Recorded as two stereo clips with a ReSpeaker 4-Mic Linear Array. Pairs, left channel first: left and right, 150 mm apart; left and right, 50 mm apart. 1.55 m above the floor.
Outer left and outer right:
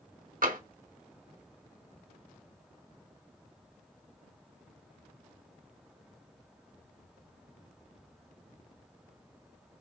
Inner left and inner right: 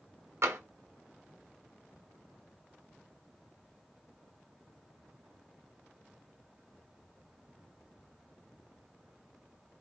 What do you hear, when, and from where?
0.4 s tapping: 70° right (ahead or behind), 1.1 m